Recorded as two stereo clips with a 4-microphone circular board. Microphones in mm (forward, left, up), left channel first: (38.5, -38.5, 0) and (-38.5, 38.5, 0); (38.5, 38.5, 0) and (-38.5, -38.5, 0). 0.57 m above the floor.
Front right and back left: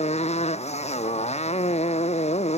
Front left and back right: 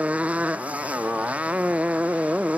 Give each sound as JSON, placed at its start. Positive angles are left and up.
{"t": 0.0, "sound": "a motorcycle", "azimuth_deg": -60}